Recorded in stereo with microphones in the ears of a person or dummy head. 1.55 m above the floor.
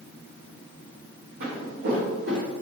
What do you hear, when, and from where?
1.4 s footsteps: 60° right (ahead or behind), 3 m; by 2.5 s 65° right (ahead or behind), 3.5 m